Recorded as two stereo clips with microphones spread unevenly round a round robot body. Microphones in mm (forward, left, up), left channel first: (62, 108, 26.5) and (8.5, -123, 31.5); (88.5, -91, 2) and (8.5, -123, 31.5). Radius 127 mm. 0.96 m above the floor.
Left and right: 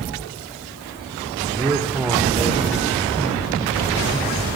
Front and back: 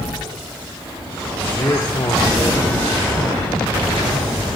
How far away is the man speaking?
About 3.5 m.